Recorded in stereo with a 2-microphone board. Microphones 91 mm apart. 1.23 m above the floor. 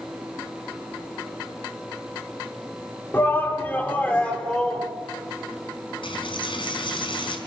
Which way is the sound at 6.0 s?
70° left (ahead or behind).